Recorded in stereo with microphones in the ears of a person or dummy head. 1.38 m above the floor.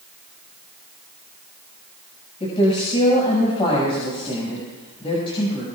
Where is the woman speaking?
30° left (ahead or behind), 6.5 m.